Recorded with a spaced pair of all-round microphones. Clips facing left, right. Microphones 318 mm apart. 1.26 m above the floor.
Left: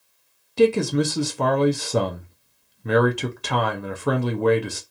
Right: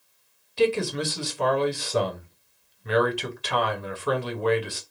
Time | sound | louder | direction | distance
0.6 | a man speaking | left 5 dB | 60° left (ahead or behind) | 0.6 m